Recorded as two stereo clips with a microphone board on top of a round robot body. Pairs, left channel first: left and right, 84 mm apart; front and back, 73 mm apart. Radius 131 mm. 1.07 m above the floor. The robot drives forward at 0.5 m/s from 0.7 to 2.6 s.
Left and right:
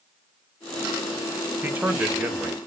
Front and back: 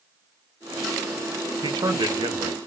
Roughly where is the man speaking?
Behind.